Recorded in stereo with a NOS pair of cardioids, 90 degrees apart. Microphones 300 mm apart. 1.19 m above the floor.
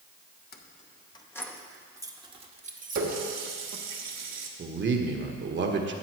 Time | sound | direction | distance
0.5 | keys jangling | 35° left | 1.0 m
3.0 | a running tap | 60° right | 1.6 m
4.6 | a man speaking | 40° right | 1.4 m